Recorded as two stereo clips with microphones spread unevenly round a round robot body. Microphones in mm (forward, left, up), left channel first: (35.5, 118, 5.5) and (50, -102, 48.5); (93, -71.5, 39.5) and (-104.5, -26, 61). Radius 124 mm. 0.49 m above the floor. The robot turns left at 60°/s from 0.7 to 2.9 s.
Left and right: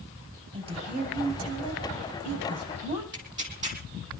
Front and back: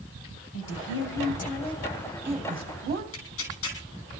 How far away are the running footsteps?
No running footsteps in this recording.